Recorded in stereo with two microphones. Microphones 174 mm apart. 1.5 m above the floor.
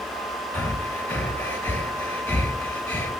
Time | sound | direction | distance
0.5 | breathing | 10° left (ahead or behind) | 1.1 m